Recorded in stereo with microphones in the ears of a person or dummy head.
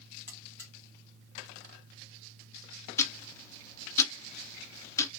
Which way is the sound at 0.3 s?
15° left (ahead or behind).